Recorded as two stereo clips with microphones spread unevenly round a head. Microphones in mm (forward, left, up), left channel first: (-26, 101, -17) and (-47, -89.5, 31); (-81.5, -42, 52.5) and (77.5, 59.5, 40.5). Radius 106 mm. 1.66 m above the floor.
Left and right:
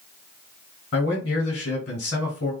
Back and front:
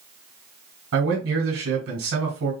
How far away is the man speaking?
About 2.5 m.